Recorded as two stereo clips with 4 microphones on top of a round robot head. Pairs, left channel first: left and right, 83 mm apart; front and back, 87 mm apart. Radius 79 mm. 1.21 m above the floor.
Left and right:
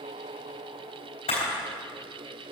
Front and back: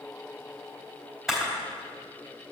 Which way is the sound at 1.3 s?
95° left.